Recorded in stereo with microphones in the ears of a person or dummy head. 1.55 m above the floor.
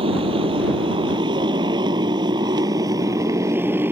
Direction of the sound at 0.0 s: 35° right (ahead or behind).